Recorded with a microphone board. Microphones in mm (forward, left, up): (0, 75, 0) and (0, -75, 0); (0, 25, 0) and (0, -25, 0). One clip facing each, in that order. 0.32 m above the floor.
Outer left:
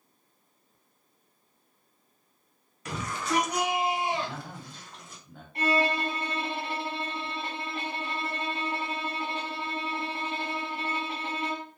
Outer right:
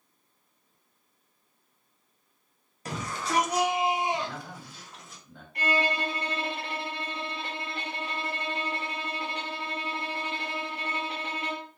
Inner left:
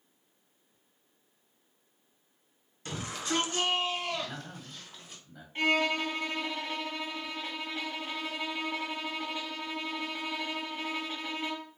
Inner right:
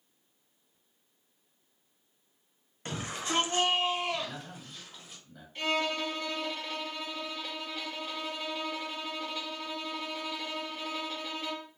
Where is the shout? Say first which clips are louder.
Outer left 1 dB, even; 35° right (ahead or behind), 1.5 m; by 5.2 s centre (ahead or behind), 1.4 m.